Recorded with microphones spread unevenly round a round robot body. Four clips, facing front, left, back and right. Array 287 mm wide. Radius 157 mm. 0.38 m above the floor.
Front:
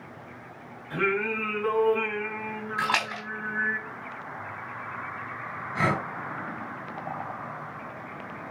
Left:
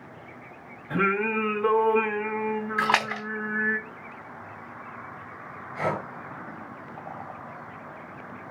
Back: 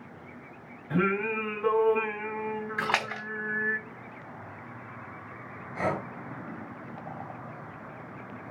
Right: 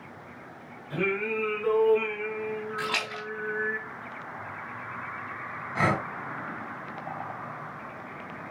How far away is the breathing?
About 3.5 m.